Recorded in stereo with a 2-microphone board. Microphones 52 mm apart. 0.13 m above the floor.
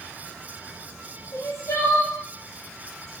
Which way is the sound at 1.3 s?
75° left (ahead or behind).